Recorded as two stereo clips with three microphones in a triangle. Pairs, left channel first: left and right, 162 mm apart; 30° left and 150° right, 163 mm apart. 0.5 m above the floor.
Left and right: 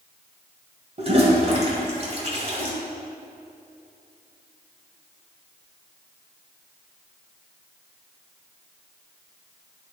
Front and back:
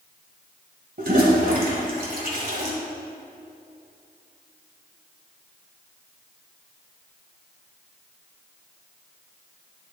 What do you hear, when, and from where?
1.0 s a toilet flushing: 140° right, 1.9 m